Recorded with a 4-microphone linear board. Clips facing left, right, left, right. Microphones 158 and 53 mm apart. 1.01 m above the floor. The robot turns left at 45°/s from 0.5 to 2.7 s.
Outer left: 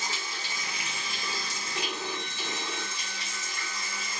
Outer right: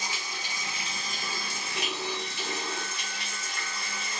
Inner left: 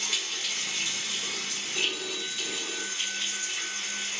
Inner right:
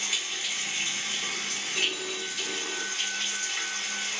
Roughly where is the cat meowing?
I don't hear a cat meowing.